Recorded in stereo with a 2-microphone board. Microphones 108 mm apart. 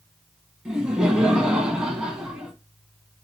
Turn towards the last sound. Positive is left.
turn(degrees=-5)  # may be behind; listen again after turning